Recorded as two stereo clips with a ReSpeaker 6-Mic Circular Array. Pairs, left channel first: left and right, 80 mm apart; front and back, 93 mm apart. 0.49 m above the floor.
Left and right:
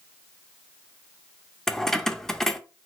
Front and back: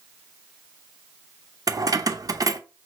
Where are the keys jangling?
170° left, 0.5 m.